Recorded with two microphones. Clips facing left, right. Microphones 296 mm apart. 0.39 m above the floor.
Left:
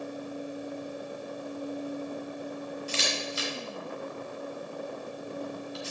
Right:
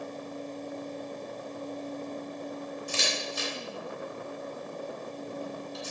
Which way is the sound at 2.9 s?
55° right (ahead or behind).